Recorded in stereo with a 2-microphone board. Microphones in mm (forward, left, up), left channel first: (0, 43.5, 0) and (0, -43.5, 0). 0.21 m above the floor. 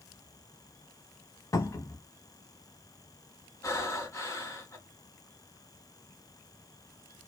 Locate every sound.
1.5 s a cupboard door: 40° left (ahead or behind), 0.7 m
3.6 s breathing: 35° left (ahead or behind), 1.0 m